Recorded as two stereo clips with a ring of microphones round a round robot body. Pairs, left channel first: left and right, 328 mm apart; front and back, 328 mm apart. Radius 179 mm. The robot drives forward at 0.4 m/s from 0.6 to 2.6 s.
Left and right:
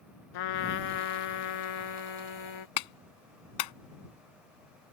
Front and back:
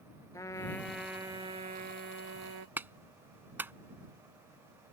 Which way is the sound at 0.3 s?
80° left.